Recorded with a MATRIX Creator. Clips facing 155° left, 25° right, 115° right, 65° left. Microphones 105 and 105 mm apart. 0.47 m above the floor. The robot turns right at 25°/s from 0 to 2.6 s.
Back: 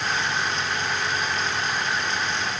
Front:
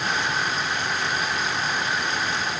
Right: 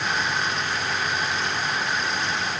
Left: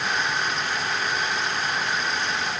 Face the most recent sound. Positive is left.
No sound to turn to.